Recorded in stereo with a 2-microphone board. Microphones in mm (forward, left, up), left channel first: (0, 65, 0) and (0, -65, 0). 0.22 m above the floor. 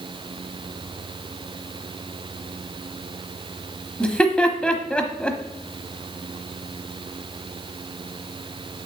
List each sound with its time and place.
4.0 s laughter: 10° left (ahead or behind), 1.0 m